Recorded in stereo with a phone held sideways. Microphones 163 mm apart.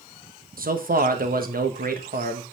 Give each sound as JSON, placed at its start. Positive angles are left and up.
{"t": 0.6, "sound": "a man speaking", "side_deg": -65, "distance_m": 1.3}